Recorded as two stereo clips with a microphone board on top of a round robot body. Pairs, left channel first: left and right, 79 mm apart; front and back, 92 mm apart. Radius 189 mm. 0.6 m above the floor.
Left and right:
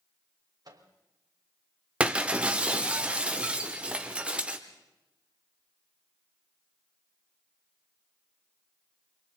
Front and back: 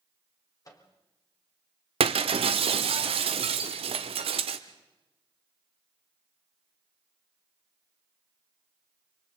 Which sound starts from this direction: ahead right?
A microwave, at 0.7 s.